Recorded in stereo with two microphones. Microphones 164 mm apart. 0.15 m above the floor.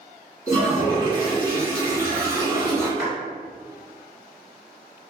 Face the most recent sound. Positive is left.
turn(degrees=-20)  # may be behind; listen again after turning